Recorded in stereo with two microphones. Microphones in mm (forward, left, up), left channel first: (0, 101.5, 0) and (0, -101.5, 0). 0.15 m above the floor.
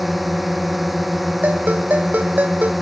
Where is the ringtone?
5° right (ahead or behind).